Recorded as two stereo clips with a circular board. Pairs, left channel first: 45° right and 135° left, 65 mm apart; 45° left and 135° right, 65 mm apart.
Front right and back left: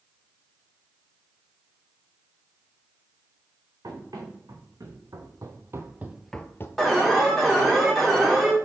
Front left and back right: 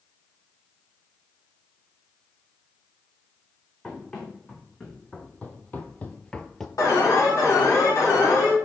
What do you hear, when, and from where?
3.8 s running footsteps: 115° left, 3.5 m; by 6.7 s 40° right, 0.9 m
6.8 s an alarm: 40° left, 3 m